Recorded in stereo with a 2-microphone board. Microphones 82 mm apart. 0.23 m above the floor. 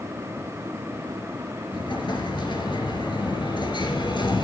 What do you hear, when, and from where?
1.7 s an explosion: 70° left (ahead or behind), 2.5 m